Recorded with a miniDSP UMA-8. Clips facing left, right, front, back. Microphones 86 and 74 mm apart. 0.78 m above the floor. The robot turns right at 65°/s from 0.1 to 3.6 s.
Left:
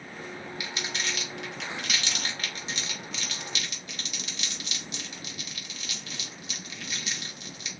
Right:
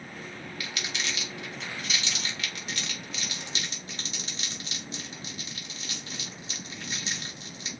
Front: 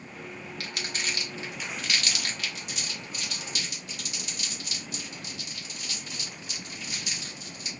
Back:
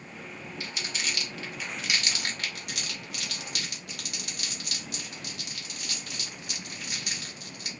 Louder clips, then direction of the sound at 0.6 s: Even, front 1 dB; 20° left.